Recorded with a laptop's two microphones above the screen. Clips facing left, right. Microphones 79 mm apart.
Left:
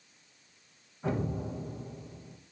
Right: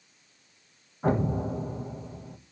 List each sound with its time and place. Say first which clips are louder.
1.0 s an explosion: right 7 dB; 45° right (ahead or behind), 1.8 m